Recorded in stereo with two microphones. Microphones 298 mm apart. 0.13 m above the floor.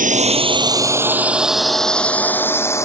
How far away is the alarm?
I don't hear an alarm.